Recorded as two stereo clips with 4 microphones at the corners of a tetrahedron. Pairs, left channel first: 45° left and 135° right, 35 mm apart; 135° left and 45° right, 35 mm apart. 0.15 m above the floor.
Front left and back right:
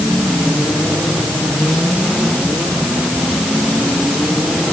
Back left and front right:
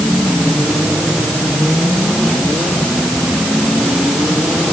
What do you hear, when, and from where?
Only background noise.